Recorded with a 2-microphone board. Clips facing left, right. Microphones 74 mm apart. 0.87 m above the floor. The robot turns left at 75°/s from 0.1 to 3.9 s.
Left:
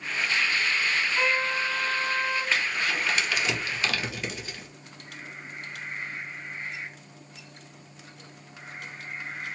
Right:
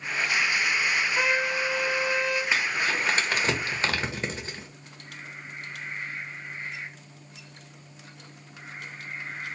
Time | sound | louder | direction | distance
1.2 | a trumpet | right 1 dB | 165° right | 2.5 m
2.5 | crumpling | right 1 dB | 15° right (ahead or behind) | 1.1 m